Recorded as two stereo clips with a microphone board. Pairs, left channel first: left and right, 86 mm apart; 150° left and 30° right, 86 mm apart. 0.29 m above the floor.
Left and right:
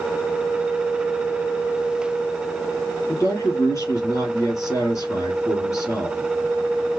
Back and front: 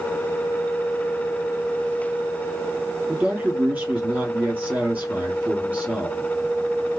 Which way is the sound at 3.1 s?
40° left.